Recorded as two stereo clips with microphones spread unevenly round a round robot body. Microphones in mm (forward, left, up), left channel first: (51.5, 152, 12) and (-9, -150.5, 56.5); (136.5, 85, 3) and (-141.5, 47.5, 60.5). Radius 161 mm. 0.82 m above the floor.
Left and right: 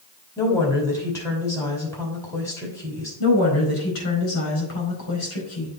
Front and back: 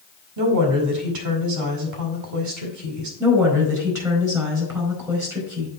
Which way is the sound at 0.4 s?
160° left.